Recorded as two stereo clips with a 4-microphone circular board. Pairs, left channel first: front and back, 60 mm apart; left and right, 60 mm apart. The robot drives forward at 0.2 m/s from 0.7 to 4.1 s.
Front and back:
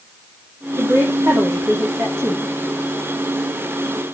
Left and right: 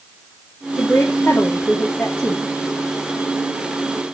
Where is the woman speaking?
140° left, 2.5 m.